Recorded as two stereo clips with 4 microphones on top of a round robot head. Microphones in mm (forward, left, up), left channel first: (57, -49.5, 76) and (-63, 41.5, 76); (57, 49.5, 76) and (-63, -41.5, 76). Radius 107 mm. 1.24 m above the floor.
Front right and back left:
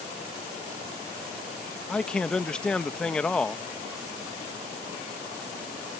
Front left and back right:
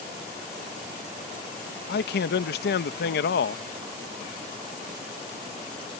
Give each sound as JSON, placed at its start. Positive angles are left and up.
{"t": 1.9, "sound": "a man speaking", "azimuth_deg": 45}